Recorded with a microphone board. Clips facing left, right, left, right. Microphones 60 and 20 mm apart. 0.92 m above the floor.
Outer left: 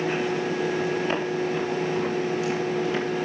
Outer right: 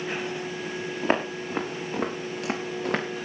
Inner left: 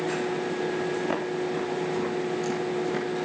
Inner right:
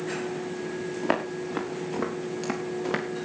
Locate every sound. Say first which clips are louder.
1.0 s footsteps: outer left 1 dB, even; 40° right (ahead or behind), 6.5 m; by 3.0 s 55° right (ahead or behind), 5 m